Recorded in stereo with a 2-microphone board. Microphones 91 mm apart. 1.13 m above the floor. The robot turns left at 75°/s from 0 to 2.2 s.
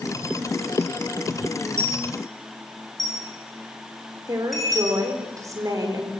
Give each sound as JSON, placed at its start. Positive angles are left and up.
{"t": 1.8, "sound": "a dropped coin", "side_deg": -30, "distance_m": 7.5}
{"t": 4.3, "sound": "a woman speaking", "side_deg": -40, "distance_m": 4.5}